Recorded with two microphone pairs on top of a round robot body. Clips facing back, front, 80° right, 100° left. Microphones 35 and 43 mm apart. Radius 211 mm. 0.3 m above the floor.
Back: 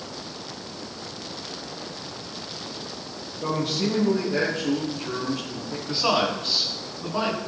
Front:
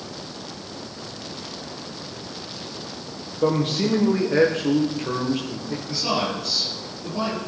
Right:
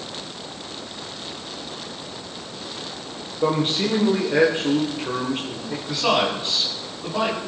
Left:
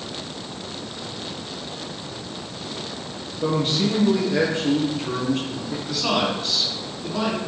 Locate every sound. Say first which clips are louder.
3.4 s a man speaking: front 5 dB, right 1 dB; 25° right, 1.8 m
5.9 s a man speaking: back 3 dB, right 3 dB; 145° right, 3 m